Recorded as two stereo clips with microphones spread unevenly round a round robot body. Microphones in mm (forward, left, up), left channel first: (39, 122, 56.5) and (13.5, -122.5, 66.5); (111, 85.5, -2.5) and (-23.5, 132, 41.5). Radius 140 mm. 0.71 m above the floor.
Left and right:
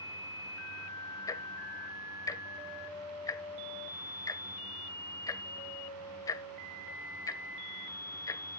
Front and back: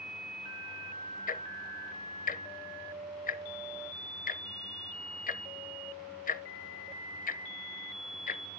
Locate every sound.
1.3 s ticking: 5° left, 0.9 m